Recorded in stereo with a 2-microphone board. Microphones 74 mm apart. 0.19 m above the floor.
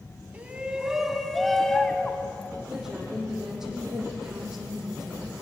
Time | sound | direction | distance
0.3 | a shout | 20° right (ahead or behind) | 1.3 m
2.7 | a woman speaking | 5° right (ahead or behind) | 7 m